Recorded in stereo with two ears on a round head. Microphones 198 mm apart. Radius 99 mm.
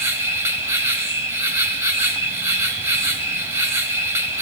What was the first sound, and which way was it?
An insect, 10° right (ahead or behind).